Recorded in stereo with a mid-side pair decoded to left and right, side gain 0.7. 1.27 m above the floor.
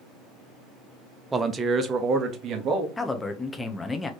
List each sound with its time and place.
1.3 s a man speaking: 15° right, 0.8 m; by 2.9 s 45° right, 1.6 m
3.0 s a man speaking: 15° left, 1.0 m